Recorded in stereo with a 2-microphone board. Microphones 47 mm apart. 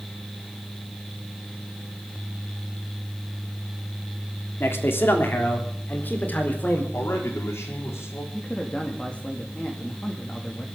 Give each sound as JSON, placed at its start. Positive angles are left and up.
{"t": 4.6, "sound": "a man speaking", "side_deg": 55, "distance_m": 3.0}
{"t": 6.9, "sound": "a man speaking", "side_deg": 65, "distance_m": 4.5}
{"t": 8.3, "sound": "a man speaking", "side_deg": 25, "distance_m": 2.5}